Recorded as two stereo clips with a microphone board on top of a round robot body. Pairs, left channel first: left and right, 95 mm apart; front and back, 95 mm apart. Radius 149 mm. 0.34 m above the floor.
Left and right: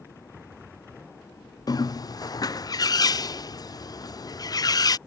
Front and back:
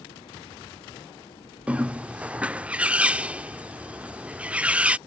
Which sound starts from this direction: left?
A bird, at 1.7 s.